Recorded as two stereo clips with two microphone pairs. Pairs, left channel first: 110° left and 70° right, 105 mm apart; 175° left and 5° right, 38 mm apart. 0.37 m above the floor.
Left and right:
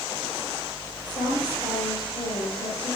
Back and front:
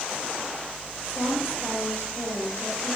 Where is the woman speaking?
140° left, 4.5 m.